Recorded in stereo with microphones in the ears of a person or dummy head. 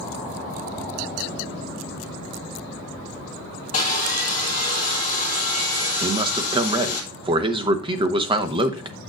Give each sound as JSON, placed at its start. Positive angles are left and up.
{"t": 3.7, "sound": "sawing", "side_deg": 35, "distance_m": 1.9}
{"t": 6.0, "sound": "a man speaking", "side_deg": -30, "distance_m": 1.0}